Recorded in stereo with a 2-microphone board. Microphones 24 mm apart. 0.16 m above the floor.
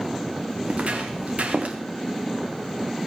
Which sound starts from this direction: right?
Footsteps, at 0.7 s.